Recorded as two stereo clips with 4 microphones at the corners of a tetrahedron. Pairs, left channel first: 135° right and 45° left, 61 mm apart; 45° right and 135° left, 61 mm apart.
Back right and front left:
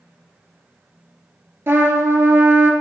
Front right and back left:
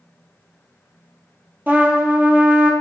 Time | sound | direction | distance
1.7 | a trumpet | 85° left | 0.9 m